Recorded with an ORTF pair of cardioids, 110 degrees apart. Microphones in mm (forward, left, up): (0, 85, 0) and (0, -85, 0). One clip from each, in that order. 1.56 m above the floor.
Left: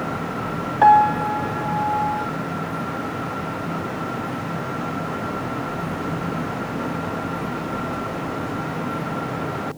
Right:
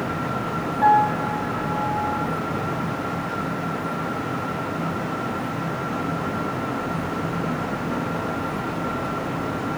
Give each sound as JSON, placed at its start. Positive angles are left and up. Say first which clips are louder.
{"t": 0.8, "sound": "a piano", "louder": "left 4 dB", "azimuth_deg": 60, "distance_m": 0.9}